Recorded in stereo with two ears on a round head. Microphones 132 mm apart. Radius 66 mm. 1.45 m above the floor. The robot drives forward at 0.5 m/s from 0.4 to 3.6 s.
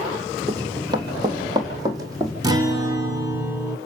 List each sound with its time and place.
0.5 s running footsteps: 30° right (ahead or behind), 2.5 m; by 2.3 s 25° right (ahead or behind), 4.5 m
2.4 s a guitar: 25° right (ahead or behind), 1.4 m; by 3.8 s 20° right (ahead or behind), 2.0 m